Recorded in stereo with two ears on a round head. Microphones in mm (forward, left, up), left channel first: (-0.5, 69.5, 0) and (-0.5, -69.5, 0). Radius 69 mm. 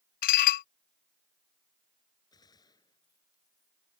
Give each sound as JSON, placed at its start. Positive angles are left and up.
{"t": 0.2, "sound": "dishes clattering", "side_deg": 60}
{"t": 2.3, "sound": "a gunshot", "side_deg": 25}